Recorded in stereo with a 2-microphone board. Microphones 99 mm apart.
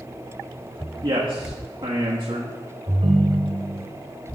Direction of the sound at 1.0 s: 55° right (ahead or behind).